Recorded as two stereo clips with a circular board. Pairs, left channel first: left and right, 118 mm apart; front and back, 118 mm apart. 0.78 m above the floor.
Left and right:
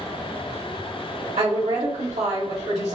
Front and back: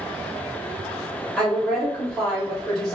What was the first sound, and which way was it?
A woman speaking, 85° right.